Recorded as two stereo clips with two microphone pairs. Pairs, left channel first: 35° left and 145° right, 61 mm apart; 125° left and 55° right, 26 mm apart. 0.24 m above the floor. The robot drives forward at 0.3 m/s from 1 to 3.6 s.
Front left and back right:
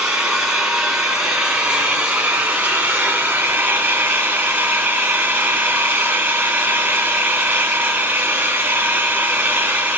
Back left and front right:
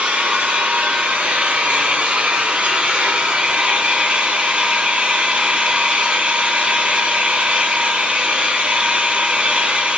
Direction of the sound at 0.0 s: 70° right.